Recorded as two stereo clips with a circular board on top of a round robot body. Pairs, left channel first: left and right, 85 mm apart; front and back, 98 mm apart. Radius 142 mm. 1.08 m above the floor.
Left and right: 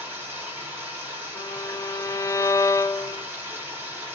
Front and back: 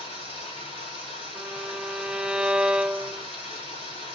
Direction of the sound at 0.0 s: 25° right.